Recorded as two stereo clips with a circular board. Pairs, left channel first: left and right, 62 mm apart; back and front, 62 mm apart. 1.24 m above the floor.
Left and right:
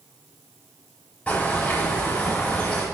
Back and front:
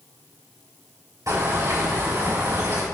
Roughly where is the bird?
Ahead left.